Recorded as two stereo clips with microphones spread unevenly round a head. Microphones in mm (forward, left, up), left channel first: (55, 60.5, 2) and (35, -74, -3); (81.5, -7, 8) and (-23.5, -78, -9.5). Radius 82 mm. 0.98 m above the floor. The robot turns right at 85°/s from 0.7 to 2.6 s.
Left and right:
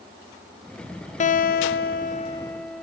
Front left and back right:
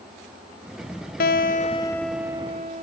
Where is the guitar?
50° left, 0.6 m; by 2.8 s 170° left, 0.6 m.